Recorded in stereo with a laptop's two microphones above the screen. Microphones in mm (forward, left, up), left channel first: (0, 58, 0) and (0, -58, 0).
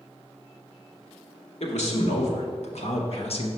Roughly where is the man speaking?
Left.